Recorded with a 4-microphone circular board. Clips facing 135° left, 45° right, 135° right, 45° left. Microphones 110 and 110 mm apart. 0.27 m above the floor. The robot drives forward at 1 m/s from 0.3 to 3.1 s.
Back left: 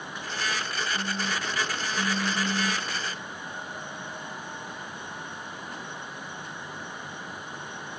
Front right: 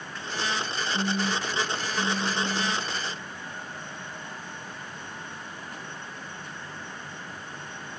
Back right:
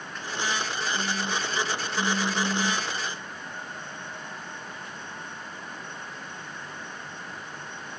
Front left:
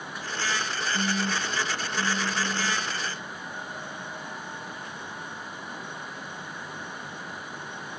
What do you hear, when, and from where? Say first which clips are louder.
0.9 s a phone buzzing: front right 7 dB, front left 4 dB; straight ahead; by 2.9 s straight behind